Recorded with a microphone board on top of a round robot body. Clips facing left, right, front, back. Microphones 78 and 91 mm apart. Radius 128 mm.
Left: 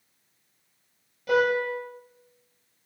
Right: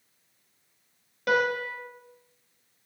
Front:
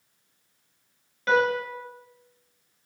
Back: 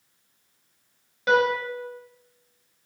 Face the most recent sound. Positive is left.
turn(degrees=-105)